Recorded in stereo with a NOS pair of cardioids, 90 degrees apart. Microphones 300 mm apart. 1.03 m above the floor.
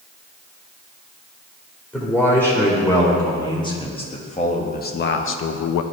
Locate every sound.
1.9 s a man speaking: 5° left, 2.5 m; by 5.8 s 65° left, 0.6 m